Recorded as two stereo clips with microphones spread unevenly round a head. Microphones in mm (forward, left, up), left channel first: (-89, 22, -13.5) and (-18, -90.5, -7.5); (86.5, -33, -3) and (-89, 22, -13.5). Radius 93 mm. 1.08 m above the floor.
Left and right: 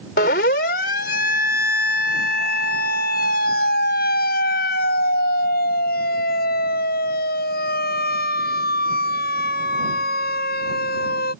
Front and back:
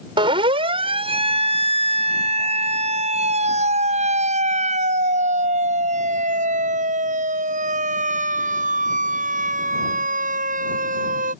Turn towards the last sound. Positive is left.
turn(degrees=110)